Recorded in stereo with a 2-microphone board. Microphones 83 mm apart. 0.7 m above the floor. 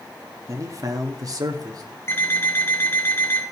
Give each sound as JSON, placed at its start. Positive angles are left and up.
{"t": 0.5, "sound": "a man speaking", "side_deg": -40, "distance_m": 1.3}
{"t": 2.1, "sound": "an alarm clock", "side_deg": 30, "distance_m": 3.5}